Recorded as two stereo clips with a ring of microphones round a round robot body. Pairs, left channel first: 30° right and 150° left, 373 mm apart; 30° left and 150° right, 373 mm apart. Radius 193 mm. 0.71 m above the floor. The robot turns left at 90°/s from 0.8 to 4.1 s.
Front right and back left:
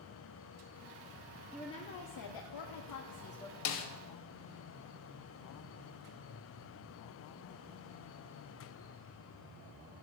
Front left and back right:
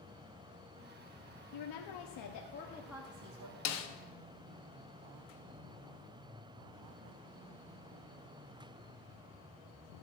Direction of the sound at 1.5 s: 65° left.